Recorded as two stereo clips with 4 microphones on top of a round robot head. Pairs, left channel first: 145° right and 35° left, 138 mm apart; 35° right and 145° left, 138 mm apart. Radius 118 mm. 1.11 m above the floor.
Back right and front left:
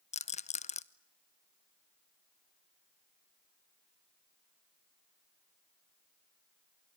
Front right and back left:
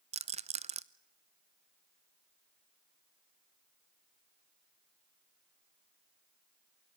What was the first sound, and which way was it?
A rattle, straight behind.